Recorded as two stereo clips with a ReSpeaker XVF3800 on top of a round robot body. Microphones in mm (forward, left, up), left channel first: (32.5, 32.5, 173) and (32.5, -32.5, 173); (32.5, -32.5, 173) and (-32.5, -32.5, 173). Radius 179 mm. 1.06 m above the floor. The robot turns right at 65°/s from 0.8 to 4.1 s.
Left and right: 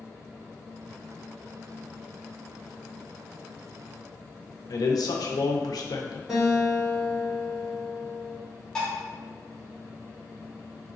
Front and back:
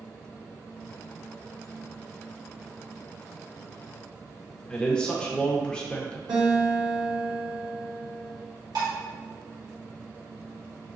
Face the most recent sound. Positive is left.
turn(degrees=170)